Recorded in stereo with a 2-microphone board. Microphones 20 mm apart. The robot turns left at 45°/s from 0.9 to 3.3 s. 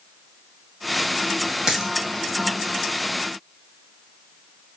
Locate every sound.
1.7 s a dropped coin: 30° right (ahead or behind), 2 m; by 1.9 s 15° right (ahead or behind), 2 m